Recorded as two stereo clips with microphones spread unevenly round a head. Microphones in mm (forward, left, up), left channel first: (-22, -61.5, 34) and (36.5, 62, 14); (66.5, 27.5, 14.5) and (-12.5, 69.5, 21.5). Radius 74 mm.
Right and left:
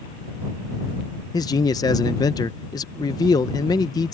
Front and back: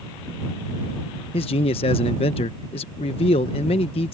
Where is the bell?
I don't hear a bell.